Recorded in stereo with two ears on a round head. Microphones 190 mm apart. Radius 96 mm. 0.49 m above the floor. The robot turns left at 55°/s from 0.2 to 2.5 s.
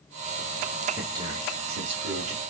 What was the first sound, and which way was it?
A man speaking, 10° right.